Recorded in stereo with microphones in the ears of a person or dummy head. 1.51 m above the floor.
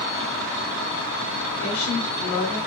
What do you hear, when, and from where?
1.6 s a woman speaking: 80° left, 2.5 m